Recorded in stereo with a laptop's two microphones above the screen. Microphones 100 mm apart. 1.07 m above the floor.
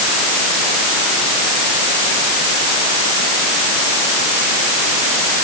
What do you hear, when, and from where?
Only background noise.